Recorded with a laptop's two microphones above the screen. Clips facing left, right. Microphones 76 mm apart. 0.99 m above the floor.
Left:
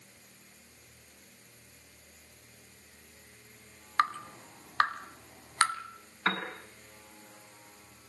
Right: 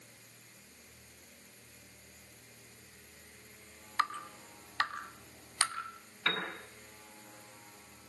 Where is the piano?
30° left (ahead or behind), 8 m.